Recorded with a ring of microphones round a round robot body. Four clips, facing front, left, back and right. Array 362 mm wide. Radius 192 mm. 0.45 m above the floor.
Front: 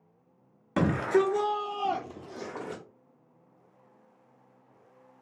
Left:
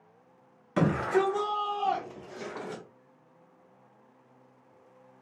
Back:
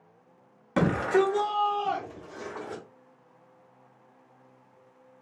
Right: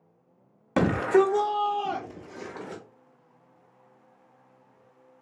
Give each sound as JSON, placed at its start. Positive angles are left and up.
{"t": 0.8, "sound": "a shout", "azimuth_deg": -90, "distance_m": 1.2}